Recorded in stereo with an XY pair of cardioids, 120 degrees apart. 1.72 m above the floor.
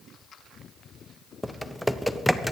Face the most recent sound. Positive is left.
turn(degrees=5)